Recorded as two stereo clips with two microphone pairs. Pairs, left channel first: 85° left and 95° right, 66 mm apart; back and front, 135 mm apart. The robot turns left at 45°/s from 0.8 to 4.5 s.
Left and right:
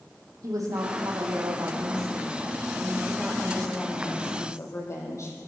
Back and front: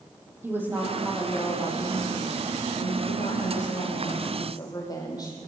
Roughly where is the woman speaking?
Right.